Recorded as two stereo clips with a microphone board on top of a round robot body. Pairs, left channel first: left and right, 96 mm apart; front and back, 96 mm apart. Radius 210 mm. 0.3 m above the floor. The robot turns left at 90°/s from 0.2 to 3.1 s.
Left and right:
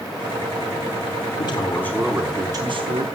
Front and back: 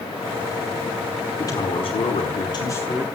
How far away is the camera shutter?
No camera shutter in this recording.